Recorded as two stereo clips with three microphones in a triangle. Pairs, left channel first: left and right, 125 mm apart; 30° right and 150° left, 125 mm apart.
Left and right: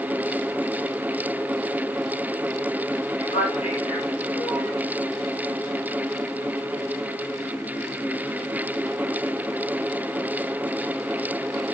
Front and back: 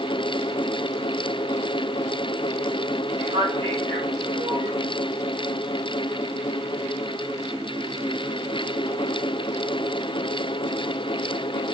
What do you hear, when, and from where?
3.2 s a man speaking: 120° left, 4 m